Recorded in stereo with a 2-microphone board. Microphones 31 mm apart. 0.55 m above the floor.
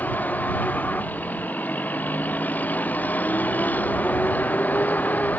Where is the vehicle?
85° left; by 5.4 s 80° left.